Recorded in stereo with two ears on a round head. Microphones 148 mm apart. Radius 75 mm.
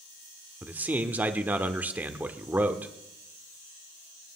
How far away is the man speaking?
About 0.9 m.